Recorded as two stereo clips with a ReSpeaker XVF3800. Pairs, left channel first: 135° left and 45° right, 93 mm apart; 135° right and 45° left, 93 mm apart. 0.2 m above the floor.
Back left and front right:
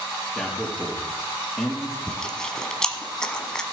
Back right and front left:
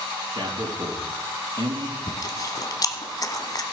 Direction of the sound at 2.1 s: 145° right.